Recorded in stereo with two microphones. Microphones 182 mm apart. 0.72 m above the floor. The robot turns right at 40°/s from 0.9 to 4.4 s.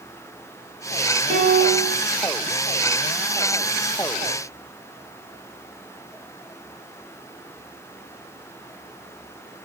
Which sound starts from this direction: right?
A piano, at 1.3 s.